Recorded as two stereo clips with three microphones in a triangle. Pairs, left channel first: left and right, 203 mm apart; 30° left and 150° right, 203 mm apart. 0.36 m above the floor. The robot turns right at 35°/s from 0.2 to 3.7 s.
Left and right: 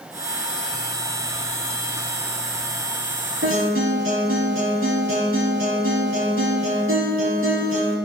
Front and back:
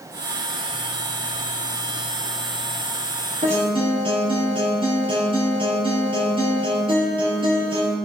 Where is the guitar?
95° right, 5.5 m; by 8.0 s 85° right, 5.5 m.